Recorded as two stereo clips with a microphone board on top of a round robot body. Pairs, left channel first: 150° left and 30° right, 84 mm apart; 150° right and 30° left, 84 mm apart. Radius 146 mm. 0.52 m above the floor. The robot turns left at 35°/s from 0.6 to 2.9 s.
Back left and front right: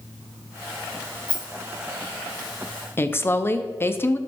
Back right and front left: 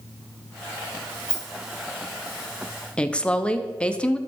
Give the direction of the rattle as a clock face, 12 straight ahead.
8 o'clock.